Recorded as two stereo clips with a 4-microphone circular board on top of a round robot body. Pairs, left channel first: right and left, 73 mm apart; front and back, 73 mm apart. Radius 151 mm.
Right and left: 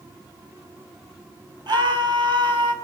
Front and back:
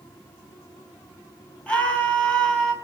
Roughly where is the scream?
Left.